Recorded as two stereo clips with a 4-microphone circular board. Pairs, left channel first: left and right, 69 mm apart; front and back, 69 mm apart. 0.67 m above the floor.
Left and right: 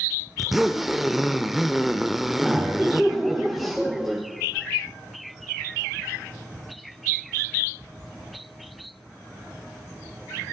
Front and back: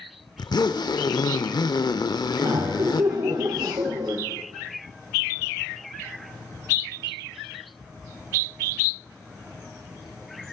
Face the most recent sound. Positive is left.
turn(degrees=-175)